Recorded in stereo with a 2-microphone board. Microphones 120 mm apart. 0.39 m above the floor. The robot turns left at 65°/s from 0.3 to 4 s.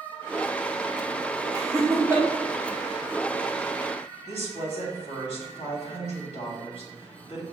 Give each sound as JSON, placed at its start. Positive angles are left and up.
{"t": 1.5, "sound": "laughter", "side_deg": -30, "distance_m": 0.9}
{"t": 4.3, "sound": "a woman speaking", "side_deg": 65, "distance_m": 1.9}